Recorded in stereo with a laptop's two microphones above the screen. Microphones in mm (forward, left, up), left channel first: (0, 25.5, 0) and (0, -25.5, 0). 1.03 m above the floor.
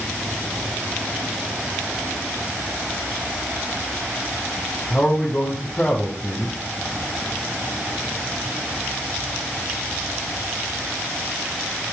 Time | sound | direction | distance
4.9 | a man speaking | 30° left (ahead or behind) | 3 m